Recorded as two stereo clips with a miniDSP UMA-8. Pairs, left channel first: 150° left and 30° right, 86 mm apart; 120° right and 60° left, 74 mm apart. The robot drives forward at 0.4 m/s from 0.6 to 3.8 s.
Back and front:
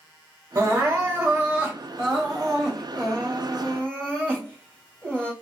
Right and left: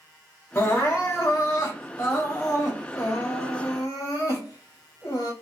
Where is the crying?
80° right, 1.3 m; by 5.3 s 135° right, 1.7 m.